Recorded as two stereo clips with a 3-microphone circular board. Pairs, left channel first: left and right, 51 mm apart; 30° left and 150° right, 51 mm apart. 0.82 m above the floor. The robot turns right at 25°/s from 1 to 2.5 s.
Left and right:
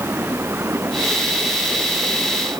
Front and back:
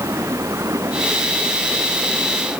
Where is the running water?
135° right; by 2.6 s 95° right.